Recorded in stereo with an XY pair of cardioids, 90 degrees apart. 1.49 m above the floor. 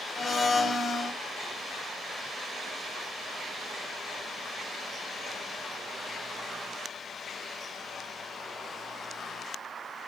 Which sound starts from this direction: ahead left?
A blender, at 0.2 s.